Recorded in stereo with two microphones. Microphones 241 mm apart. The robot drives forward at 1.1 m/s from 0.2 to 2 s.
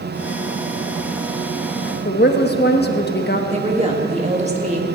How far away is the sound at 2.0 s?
About 1.2 m.